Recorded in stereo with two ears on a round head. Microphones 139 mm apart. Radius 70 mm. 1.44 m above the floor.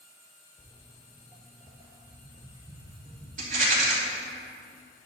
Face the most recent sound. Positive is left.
turn(degrees=-55)  # may be behind; listen again after turning